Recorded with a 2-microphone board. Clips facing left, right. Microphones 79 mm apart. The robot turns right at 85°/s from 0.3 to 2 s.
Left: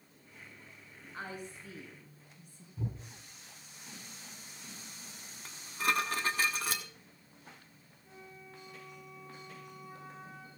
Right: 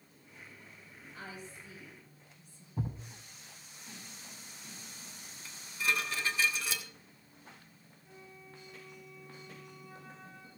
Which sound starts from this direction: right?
A thud, at 2.8 s.